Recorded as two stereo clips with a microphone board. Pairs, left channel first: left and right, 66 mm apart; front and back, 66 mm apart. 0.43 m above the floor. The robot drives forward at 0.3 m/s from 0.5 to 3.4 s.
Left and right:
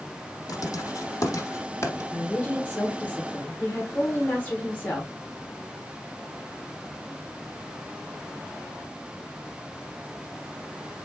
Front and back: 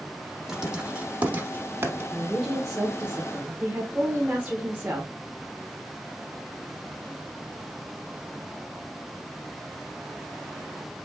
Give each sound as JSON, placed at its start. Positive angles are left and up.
{"t": 0.5, "sound": "writing", "azimuth_deg": 100, "distance_m": 0.7}
{"t": 2.1, "sound": "a woman speaking", "azimuth_deg": 90, "distance_m": 1.0}